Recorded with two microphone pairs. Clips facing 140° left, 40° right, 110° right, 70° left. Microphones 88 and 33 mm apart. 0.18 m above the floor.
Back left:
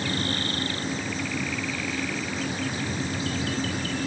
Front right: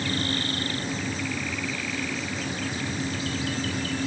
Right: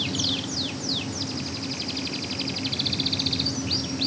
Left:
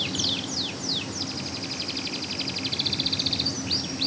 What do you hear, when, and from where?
Only background noise.